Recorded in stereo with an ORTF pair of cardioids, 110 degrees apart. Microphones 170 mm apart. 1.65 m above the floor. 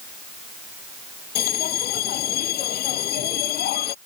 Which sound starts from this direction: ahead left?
A bell, at 1.4 s.